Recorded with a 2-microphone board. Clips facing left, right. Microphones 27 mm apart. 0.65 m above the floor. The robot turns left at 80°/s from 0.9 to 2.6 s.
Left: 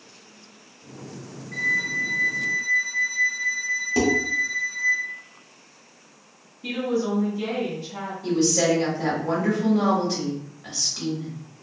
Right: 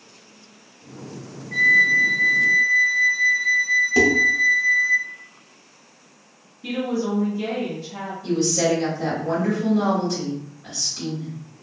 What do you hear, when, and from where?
1.5 s a flute: 115° right, 1.2 m; by 5.0 s 160° left, 1.2 m
4.0 s dishes clattering: centre (ahead or behind), 1.0 m
6.6 s a woman speaking: centre (ahead or behind), 1.2 m
8.2 s a woman speaking: 50° left (ahead or behind), 1.7 m